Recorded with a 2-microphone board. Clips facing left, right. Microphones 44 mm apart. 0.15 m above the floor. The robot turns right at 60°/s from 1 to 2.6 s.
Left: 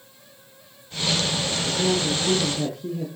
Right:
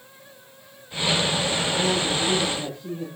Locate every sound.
1.6 s a woman speaking: 5° left, 5.5 m; by 3.0 s 60° left, 5.5 m